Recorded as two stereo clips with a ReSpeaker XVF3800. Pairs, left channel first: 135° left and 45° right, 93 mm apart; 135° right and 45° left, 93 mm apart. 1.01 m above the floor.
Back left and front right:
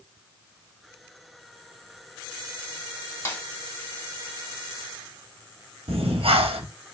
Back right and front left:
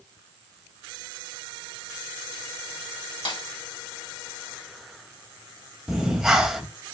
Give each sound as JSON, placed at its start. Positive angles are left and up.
{"t": 3.2, "sound": "a snare drum", "azimuth_deg": -160, "distance_m": 1.4}
{"t": 5.9, "sound": "breathing", "azimuth_deg": -40, "distance_m": 1.1}